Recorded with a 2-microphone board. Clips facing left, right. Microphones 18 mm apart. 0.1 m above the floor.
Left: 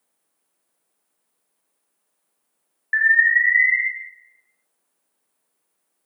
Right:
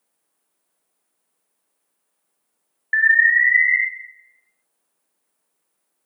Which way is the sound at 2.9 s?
5° right (ahead or behind).